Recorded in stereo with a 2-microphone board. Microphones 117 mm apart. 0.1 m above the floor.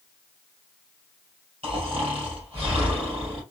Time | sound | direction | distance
1.6 | snoring | 50° right (ahead or behind) | 2.5 m